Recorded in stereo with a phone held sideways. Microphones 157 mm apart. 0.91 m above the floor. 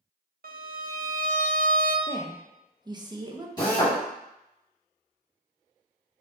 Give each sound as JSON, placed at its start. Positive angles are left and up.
{"t": 0.4, "sound": "a violin", "side_deg": -75, "distance_m": 0.6}
{"t": 2.1, "sound": "a woman speaking", "side_deg": -25, "distance_m": 0.6}
{"t": 3.6, "sound": "a drill", "side_deg": 25, "distance_m": 1.8}